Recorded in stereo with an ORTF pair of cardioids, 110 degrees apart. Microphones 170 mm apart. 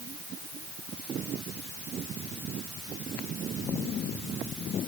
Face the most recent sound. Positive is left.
No sound to turn to.